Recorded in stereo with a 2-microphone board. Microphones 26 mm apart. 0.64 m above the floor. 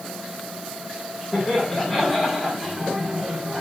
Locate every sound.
1.3 s laughter: centre (ahead or behind), 5 m; by 3.6 s 25° right (ahead or behind), 4.5 m